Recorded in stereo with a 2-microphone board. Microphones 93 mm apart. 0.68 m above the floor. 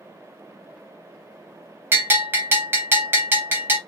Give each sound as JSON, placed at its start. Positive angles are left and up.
{"t": 1.9, "sound": "a bell", "side_deg": -25, "distance_m": 0.6}